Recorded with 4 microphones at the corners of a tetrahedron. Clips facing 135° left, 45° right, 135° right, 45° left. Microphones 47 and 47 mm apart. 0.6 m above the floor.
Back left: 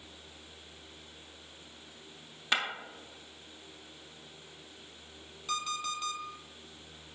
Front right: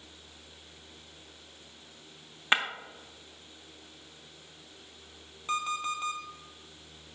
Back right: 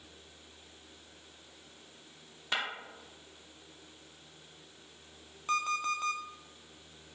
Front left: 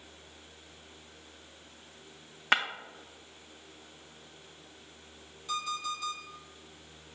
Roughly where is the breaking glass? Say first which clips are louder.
Front right 4 dB, front left 7 dB; ahead.